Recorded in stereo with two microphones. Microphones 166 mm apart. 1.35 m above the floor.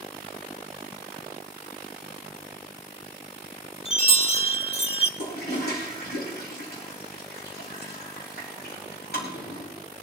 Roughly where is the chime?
Left.